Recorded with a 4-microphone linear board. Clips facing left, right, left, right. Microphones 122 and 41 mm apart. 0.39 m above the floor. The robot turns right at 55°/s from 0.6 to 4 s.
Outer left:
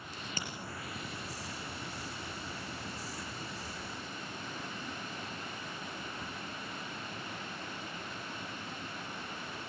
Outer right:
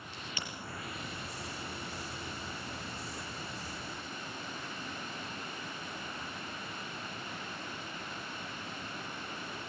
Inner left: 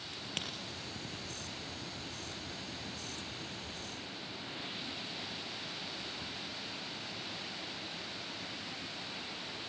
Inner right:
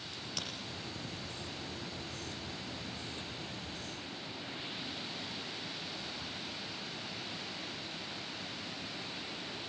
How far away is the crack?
About 5 m.